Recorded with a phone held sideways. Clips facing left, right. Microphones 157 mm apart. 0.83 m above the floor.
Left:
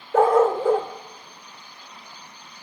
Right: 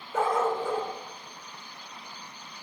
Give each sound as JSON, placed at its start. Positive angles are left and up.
{"t": 0.1, "sound": "a dog barking", "side_deg": 65, "distance_m": 0.8}